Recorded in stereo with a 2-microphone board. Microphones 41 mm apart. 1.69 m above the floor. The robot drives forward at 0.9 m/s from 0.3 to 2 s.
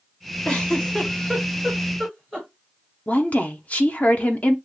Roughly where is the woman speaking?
Left.